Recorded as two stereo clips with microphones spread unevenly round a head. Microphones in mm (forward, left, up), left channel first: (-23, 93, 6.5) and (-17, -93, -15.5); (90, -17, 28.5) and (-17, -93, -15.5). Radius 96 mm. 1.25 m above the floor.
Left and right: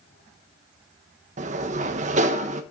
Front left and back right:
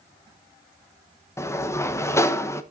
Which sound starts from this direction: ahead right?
A sliding door, at 1.4 s.